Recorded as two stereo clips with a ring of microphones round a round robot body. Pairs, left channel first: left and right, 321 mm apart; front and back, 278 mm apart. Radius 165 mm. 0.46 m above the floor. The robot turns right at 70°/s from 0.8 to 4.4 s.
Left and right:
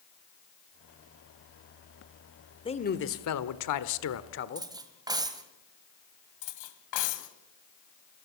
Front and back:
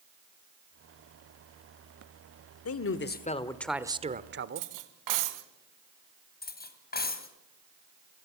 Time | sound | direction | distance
2.6 | a man speaking | 15° left | 1.3 m
4.5 | cutlery clinking | 170° right | 1.6 m
6.4 | cutlery clinking | 55° left | 2 m